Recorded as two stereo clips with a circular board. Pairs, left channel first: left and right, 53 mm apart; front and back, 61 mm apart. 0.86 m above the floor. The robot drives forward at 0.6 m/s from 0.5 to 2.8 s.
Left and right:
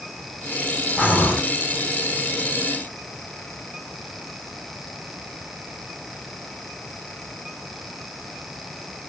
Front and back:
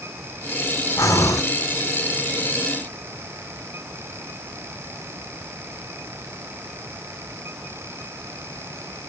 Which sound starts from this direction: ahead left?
Breathing, at 1.0 s.